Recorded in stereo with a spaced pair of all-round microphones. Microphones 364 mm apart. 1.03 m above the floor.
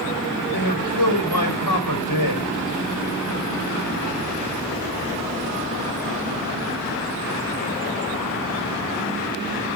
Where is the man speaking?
85° left, 5.5 m.